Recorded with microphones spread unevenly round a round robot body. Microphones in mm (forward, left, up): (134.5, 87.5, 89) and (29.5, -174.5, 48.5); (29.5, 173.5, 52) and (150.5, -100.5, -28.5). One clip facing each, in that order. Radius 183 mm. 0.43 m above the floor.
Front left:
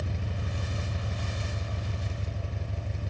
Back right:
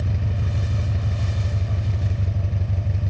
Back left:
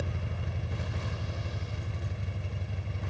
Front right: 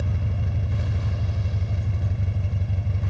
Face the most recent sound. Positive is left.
turn(degrees=-105)